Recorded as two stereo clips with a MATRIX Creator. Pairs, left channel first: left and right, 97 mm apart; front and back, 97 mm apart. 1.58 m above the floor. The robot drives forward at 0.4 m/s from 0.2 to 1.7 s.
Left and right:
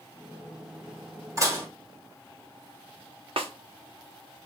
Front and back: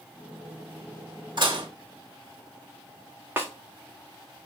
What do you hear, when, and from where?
1.4 s dishes clattering: 145° right, 1.4 m
3.4 s a snare drum: 115° right, 0.8 m